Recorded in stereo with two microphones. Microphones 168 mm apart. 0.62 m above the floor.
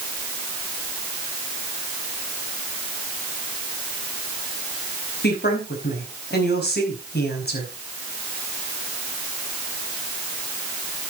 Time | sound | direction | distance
5.2 | a woman speaking | 75° left (ahead or behind) | 5 m